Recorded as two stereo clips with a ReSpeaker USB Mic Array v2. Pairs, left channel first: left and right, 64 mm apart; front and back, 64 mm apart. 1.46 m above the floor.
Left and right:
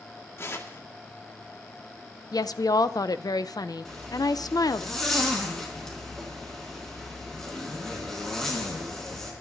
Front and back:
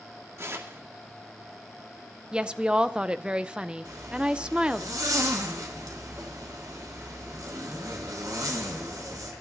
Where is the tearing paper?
135° left, 1.8 m.